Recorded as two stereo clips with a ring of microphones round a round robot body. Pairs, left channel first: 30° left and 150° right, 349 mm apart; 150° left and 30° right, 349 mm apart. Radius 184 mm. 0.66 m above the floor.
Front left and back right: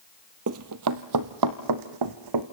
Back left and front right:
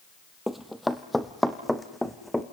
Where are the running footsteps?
120° right, 0.8 m.